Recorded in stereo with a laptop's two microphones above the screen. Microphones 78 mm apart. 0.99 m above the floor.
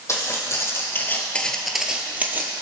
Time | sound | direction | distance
0.1 | footsteps | 40° left (ahead or behind) | 2.0 m